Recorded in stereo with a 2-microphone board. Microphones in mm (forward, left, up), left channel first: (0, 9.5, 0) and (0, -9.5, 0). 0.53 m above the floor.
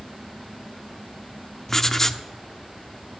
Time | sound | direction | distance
1.7 | writing | 25° left (ahead or behind) | 0.9 m